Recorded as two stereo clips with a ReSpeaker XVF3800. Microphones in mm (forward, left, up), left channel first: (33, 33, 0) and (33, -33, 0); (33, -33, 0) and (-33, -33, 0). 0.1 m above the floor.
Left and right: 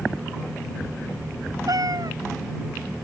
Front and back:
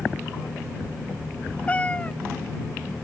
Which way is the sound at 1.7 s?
70° right.